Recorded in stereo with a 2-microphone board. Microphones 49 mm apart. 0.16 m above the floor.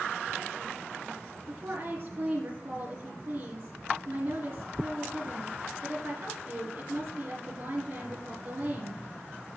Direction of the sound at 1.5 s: 50° right (ahead or behind).